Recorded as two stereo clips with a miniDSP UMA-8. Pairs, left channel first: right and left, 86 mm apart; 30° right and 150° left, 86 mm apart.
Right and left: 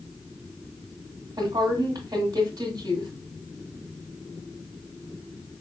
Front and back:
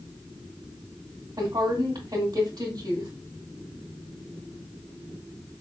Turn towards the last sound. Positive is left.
turn(degrees=125)